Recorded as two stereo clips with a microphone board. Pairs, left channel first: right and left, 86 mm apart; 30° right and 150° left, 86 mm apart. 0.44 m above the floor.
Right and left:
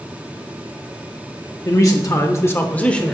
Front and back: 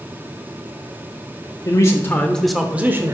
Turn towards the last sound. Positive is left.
turn(degrees=-170)